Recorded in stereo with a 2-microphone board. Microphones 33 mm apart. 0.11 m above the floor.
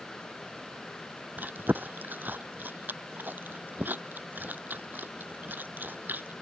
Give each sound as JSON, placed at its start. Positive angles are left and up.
{"t": 1.4, "sound": "chewing", "side_deg": -70}